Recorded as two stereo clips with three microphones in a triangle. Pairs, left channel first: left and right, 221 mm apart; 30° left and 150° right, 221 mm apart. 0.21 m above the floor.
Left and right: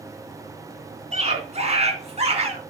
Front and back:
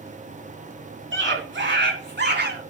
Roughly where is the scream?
Behind right.